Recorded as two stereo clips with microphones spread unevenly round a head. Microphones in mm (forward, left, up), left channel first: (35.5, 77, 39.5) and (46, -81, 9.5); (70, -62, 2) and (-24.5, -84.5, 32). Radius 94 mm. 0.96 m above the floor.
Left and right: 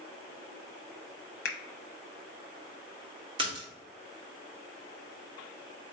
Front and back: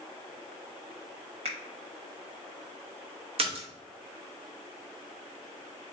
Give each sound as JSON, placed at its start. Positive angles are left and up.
{"t": 1.4, "sound": "a finger snap", "azimuth_deg": 130, "distance_m": 0.7}
{"t": 3.4, "sound": "a splash", "azimuth_deg": -140, "distance_m": 1.4}